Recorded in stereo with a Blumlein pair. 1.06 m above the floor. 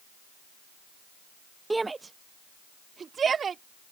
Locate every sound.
1.7 s a shout: 5° right; by 3.6 s 20° right